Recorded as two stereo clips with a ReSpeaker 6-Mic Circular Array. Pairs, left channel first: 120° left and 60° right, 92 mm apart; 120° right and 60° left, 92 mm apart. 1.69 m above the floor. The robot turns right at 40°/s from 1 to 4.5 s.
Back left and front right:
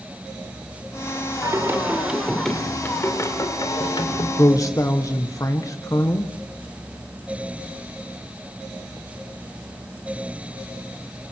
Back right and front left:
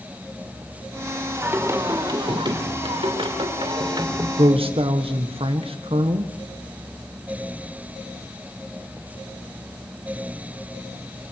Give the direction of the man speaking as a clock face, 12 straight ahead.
10 o'clock.